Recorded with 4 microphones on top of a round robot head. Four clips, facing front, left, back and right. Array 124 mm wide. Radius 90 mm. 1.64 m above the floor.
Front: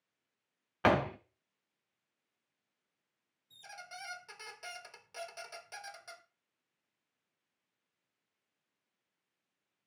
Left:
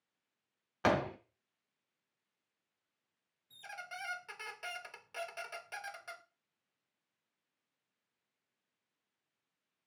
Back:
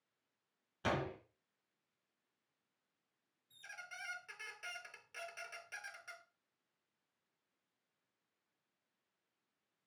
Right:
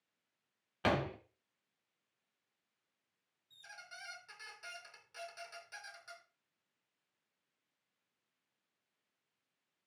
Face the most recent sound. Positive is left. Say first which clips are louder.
# left 8 dB, front 4 dB
turn(degrees=65)